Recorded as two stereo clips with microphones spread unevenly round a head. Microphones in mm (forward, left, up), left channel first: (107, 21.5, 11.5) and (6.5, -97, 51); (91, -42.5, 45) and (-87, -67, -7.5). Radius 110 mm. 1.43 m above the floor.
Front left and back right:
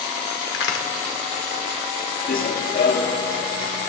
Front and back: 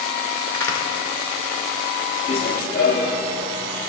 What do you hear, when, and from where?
0.5 s a crack: 85° left, 1.6 m
2.3 s running footsteps: 20° left, 1.9 m; by 3.9 s 45° left, 3.5 m